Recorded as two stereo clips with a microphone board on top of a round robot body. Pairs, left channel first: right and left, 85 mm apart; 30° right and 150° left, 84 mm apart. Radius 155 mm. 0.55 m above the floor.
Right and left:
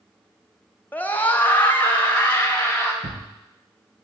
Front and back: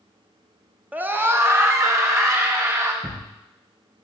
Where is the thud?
65° left, 1.9 m.